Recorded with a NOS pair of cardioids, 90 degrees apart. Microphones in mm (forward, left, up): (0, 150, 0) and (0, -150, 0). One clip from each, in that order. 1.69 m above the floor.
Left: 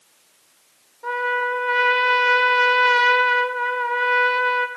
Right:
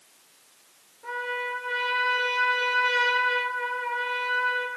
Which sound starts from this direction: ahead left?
A trumpet, at 1.0 s.